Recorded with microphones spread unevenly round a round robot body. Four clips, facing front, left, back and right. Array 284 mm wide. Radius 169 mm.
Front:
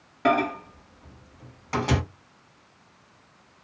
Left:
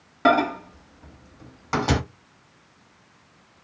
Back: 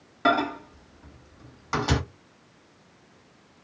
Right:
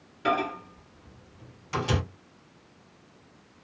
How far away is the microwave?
About 0.9 m.